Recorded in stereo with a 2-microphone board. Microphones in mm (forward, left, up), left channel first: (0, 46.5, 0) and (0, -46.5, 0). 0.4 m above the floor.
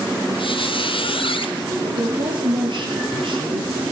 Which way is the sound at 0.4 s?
65° left (ahead or behind).